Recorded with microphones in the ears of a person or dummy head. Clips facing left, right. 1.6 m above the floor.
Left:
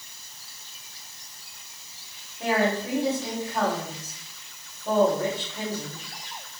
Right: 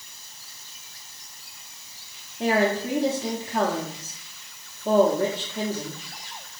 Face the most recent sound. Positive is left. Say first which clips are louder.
# right 2 dB
turn(degrees=-45)  # may be behind; listen again after turning